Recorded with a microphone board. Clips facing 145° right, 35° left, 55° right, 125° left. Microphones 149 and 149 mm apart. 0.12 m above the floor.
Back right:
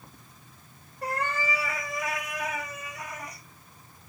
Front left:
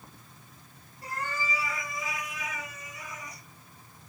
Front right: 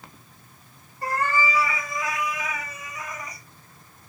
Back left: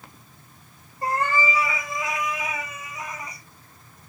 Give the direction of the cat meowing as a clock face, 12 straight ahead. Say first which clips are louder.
Back right 5 dB, back left 1 dB; 6 o'clock.